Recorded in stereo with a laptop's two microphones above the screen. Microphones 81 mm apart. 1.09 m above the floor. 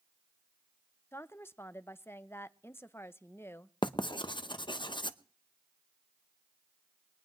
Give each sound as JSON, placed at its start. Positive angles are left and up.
{"t": 1.1, "sound": "a woman speaking", "side_deg": 30, "distance_m": 0.5}
{"t": 3.8, "sound": "writing", "side_deg": 70, "distance_m": 0.8}